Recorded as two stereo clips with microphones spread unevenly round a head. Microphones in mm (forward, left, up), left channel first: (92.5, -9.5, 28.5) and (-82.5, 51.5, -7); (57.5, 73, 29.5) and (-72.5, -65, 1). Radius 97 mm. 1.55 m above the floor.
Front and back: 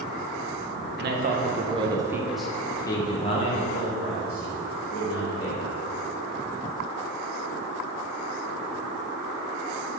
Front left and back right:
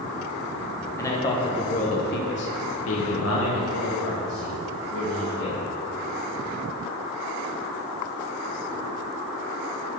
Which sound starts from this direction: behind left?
A man speaking, at 1.0 s.